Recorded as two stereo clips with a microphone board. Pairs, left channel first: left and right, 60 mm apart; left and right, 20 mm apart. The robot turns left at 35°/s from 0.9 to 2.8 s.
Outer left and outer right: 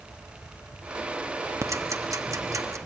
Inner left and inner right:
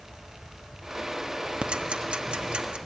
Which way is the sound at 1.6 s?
60° right (ahead or behind).